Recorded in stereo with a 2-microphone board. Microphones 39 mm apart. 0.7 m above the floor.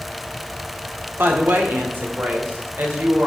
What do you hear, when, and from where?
1.2 s a woman speaking: 70° right (ahead or behind), 1.5 m; by 3.3 s 55° right (ahead or behind), 2.5 m